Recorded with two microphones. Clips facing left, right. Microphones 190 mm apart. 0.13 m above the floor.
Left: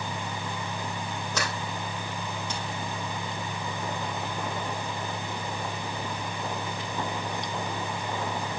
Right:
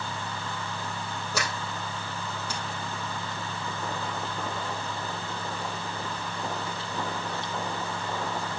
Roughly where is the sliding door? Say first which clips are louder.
Even; centre.